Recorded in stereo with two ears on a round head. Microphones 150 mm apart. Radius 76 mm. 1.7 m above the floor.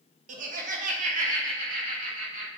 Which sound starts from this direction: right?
Laughter, at 0.3 s.